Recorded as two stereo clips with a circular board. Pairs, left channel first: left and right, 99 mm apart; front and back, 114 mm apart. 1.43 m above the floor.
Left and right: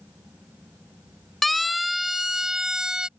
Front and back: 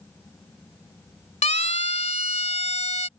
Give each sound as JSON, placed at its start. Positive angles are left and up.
{"t": 1.4, "sound": "a siren", "azimuth_deg": 0}